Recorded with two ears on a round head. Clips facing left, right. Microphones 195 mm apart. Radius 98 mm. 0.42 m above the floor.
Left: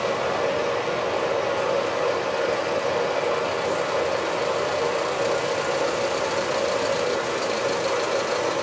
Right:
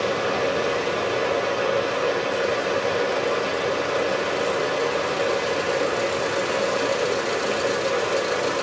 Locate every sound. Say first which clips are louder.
0.0 s running water: right 1 dB; 20° right (ahead or behind), 8.5 m